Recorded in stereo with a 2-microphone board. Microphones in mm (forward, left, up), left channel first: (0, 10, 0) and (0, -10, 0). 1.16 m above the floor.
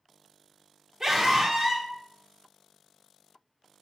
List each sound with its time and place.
1.0 s a scream: 20° right (ahead or behind), 1.3 m